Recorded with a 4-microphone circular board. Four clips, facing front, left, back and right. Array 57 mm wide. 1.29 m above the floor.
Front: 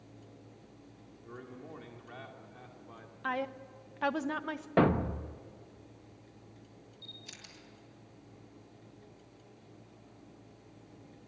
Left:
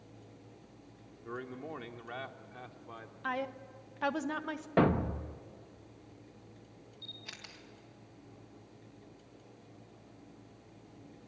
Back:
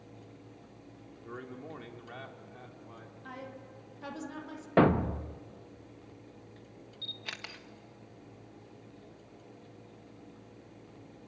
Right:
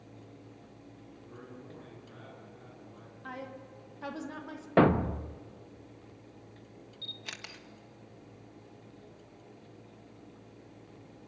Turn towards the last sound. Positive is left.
turn(degrees=-160)